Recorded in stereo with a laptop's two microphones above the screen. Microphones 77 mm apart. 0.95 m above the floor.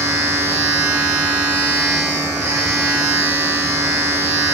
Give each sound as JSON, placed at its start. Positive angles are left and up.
{"t": 0.0, "sound": "a machine running", "side_deg": -45, "distance_m": 3.5}